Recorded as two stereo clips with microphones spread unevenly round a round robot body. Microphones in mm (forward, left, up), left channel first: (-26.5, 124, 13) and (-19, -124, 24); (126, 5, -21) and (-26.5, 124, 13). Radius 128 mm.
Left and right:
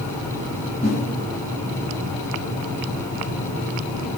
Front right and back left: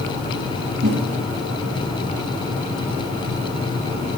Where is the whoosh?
145° left, 2.5 m.